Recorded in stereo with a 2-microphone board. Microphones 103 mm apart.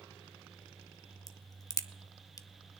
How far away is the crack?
About 0.6 m.